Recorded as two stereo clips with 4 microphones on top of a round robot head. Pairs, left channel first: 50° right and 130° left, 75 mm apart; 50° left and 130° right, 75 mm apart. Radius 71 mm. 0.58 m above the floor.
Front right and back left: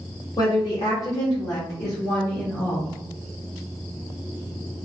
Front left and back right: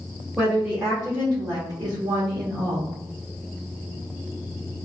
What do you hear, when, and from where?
0.4 s a woman speaking: 55° right, 1.5 m; by 3.0 s 105° right, 2.5 m